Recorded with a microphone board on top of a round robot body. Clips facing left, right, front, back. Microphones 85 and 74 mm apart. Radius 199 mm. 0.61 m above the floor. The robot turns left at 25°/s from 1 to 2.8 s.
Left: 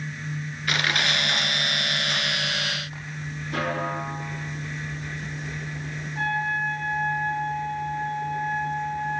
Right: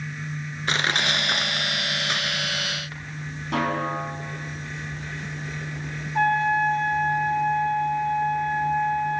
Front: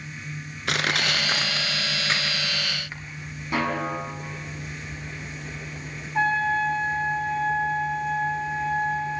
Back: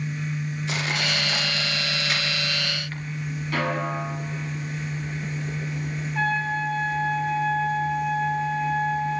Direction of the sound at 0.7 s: 30° right.